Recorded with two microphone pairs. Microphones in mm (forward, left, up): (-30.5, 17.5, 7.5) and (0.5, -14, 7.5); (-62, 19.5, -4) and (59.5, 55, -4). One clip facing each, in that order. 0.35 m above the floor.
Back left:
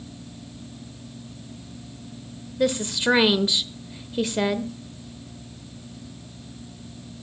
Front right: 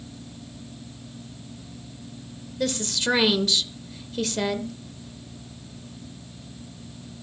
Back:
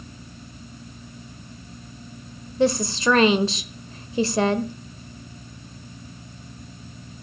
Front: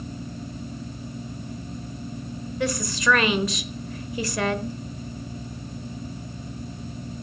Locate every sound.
2.6 s a woman speaking: 170° right, 0.9 m